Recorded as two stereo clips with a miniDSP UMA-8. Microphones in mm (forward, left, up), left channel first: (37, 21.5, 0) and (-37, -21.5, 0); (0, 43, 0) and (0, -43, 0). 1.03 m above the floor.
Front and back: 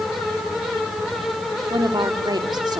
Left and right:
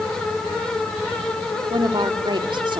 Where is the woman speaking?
110° right, 2 m.